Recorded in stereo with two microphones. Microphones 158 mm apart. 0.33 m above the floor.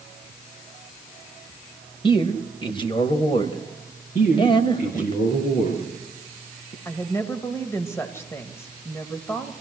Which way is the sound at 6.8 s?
15° left (ahead or behind).